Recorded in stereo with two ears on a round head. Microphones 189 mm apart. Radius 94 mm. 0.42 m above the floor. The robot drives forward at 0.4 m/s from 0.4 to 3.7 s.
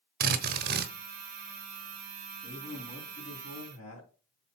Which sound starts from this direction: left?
A man speaking, at 2.4 s.